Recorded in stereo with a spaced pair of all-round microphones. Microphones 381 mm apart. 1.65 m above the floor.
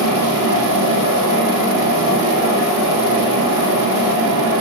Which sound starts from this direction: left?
A fan, at 0.0 s.